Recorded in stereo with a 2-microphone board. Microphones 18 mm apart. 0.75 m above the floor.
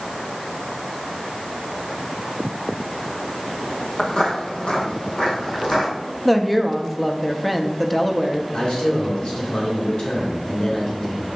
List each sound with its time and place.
4.0 s footsteps: 60° left (ahead or behind), 1.5 m; by 5.9 s 55° left (ahead or behind), 3.5 m
6.2 s a woman speaking: 5° left (ahead or behind), 0.6 m
8.5 s a man speaking: 60° left (ahead or behind), 2 m